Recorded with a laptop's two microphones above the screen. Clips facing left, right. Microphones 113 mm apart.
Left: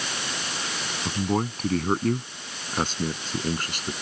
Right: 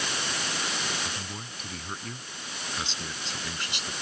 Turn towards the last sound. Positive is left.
turn(degrees=45)  # may be behind; listen again after turning